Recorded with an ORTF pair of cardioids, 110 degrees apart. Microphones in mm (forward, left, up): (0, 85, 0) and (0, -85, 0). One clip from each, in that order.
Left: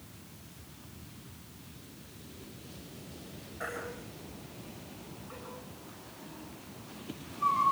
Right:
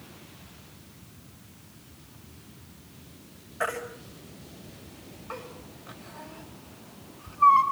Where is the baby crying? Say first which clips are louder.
Right 8 dB; 60° right, 5 m.